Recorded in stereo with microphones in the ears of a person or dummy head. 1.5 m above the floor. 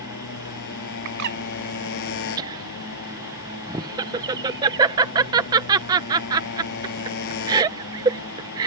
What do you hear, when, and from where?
0.0 s a motorcycle: 60° left (ahead or behind)
1.1 s a bird: 55° right (ahead or behind)
2.4 s laughter: 25° right (ahead or behind)